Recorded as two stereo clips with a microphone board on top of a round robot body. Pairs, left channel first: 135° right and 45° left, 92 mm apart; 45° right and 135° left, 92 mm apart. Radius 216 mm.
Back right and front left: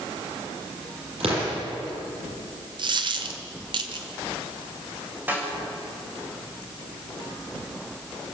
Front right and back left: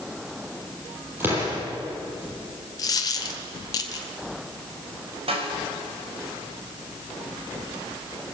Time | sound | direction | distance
1.2 | an explosion | 65° left | 8.5 m
2.8 | a dropped coin | 5° left | 1.2 m
5.3 | a snare drum | 115° left | 5 m